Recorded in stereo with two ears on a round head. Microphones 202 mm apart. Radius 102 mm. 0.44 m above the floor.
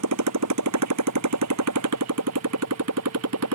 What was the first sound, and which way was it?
A motorcycle, 75° right (ahead or behind).